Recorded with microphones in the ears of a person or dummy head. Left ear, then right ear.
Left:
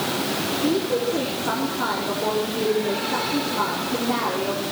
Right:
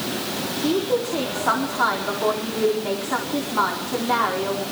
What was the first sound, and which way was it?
A woman speaking, 40° right (ahead or behind).